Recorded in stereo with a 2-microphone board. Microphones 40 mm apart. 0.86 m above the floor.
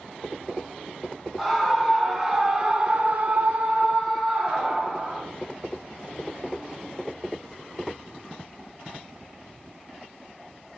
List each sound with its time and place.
1.4 s a scream: 5° right (ahead or behind), 1.9 m; by 5.2 s 25° right (ahead or behind), 1.9 m